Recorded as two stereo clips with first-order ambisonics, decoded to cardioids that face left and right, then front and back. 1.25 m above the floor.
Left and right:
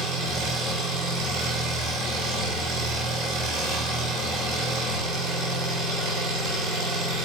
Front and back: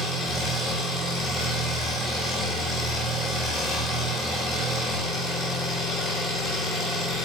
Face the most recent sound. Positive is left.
turn(degrees=-100)